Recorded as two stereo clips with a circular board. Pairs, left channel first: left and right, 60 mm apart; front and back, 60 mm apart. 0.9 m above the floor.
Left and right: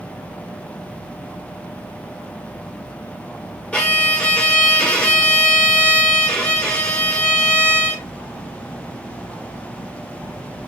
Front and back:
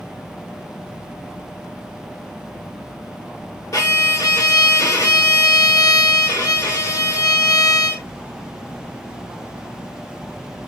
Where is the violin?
15° left, 1.0 m.